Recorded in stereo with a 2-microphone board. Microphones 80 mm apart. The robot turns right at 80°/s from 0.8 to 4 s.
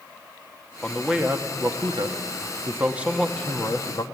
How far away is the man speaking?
About 1.5 m.